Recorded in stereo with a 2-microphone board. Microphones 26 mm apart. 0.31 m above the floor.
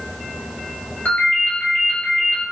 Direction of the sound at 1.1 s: 75° left (ahead or behind).